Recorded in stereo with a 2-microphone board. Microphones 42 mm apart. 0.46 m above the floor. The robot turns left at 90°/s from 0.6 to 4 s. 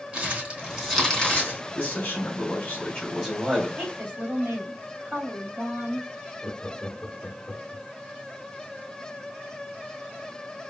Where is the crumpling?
30° right (ahead or behind), 3 m; by 1.6 s 55° left (ahead or behind), 3 m.